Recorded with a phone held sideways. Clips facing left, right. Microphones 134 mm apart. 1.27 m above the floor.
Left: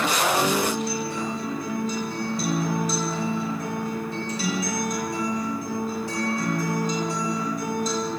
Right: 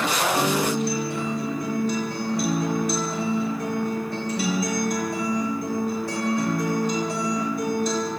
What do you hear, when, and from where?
0.3 s a guitar: 60° right (ahead or behind), 2 m